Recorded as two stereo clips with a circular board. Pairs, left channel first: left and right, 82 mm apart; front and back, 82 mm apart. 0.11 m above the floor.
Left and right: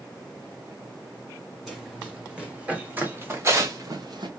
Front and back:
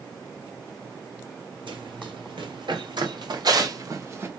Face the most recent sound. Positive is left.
turn(degrees=-120)